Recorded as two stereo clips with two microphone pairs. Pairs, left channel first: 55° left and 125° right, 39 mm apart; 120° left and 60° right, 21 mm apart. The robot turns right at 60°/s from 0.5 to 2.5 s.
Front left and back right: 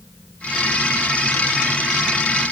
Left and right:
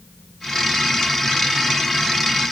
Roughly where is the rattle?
No rattle in this recording.